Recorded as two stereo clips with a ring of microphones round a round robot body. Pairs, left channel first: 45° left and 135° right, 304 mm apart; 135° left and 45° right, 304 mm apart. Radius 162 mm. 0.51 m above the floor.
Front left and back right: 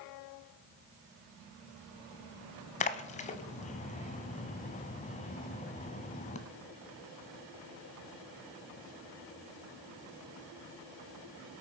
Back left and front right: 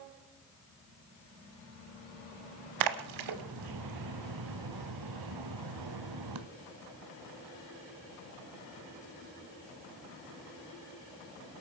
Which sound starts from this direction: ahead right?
A splash, at 2.8 s.